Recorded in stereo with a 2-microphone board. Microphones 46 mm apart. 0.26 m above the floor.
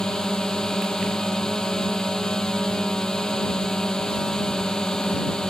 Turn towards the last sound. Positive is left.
turn(degrees=15)  # may be behind; listen again after turning